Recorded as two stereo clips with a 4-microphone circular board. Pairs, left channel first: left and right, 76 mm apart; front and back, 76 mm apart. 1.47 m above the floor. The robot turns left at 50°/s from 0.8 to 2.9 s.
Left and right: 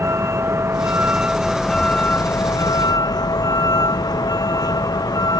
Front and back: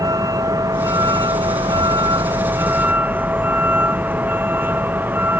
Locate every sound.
0.0 s a vehicle: 145° right; by 5.4 s 115° left